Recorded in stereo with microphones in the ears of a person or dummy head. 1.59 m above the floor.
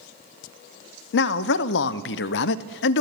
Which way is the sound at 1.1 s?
65° left (ahead or behind).